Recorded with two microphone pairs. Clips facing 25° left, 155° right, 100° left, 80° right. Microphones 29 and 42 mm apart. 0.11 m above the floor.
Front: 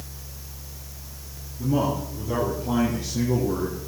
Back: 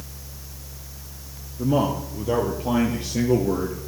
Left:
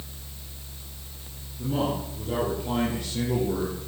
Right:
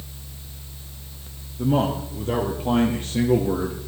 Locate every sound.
1.6 s a man speaking: 125° right, 4 m; by 3.8 s 130° right, 2.5 m